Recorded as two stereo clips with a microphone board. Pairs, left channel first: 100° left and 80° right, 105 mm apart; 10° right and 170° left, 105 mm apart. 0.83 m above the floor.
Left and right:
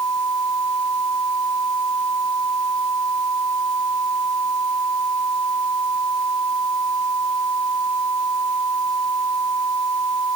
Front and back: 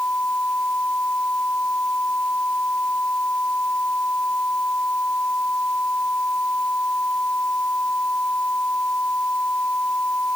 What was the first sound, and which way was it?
Only background noise.